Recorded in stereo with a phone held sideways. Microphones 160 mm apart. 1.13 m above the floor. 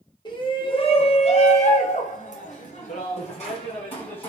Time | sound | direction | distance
0.2 | a shout | 30° left (ahead or behind) | 1.4 m